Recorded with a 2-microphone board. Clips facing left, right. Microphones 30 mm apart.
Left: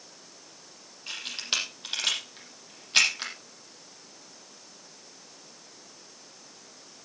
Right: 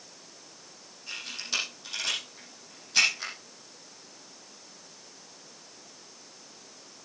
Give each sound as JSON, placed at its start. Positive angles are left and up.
{"t": 1.1, "sound": "a camera shutter", "side_deg": 45, "distance_m": 7.5}